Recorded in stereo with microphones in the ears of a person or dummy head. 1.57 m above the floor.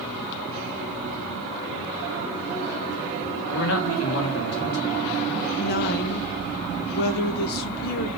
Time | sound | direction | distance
3.5 | a man speaking | 65° left (ahead or behind) | 1.5 m
5.6 | a woman speaking | 50° left (ahead or behind) | 1.1 m